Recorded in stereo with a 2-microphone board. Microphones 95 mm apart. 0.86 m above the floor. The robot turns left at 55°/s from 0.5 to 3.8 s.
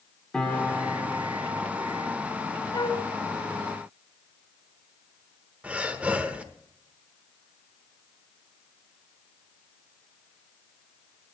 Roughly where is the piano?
Ahead.